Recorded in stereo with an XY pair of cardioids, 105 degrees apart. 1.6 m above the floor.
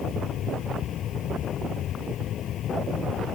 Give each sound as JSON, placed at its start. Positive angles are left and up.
{"t": 0.0, "sound": "a fan", "azimuth_deg": 65}